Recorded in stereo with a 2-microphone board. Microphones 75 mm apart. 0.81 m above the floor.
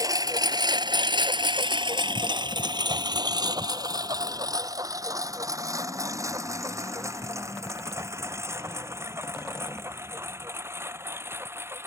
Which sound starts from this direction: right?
A lawn mower, at 0.0 s.